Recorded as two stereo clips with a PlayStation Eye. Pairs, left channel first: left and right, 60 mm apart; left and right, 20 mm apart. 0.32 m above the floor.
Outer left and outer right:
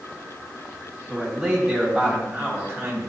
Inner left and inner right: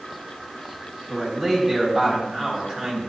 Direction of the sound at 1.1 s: 15° right (ahead or behind).